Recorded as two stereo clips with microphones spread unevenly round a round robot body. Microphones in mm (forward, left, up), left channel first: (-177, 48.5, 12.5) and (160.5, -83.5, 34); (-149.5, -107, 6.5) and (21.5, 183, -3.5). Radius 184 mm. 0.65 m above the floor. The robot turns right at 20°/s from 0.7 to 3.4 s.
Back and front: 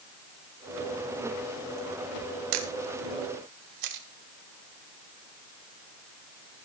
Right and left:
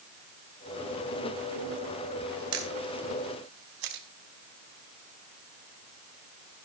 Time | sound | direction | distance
2.5 | a camera shutter | 5° left | 1.9 m